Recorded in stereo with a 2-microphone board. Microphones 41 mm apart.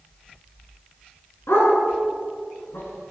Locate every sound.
1.5 s a dog barking: 80° left, 8 m; by 3.1 s 75° left (ahead or behind), 7 m